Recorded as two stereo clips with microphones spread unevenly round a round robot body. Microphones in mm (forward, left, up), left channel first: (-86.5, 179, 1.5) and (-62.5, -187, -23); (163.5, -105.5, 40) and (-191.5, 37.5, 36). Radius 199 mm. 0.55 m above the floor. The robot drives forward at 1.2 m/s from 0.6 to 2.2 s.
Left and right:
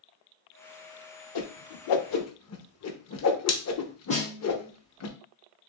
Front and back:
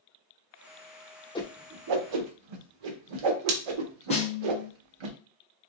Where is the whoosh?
55° left, 0.6 m; by 5.1 s 145° left, 0.9 m.